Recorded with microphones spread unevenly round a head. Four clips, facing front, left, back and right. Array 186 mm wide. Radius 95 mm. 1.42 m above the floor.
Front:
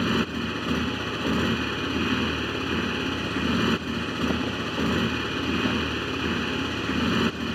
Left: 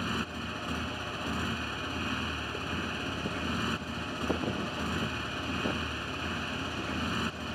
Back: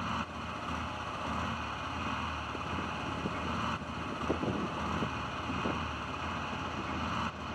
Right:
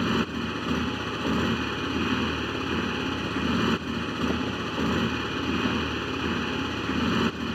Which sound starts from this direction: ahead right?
A motorcycle, at 0.0 s.